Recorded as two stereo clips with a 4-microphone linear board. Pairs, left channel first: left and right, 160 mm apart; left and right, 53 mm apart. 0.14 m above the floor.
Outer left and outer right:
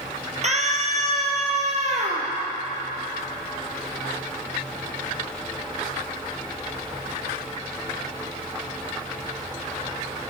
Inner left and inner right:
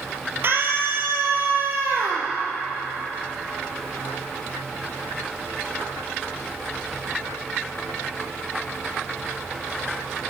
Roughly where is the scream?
Right.